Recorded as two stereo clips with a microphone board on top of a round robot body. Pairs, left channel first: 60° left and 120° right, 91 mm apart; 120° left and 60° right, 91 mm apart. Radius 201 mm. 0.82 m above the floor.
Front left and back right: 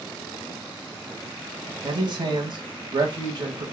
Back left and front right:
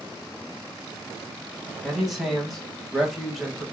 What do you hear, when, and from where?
1.8 s a man speaking: 150° right, 1.9 m